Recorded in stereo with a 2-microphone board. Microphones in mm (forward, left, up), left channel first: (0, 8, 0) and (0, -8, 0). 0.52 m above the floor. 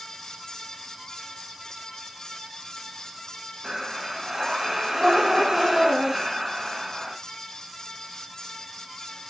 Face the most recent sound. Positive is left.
turn(degrees=-50)  # may be behind; listen again after turning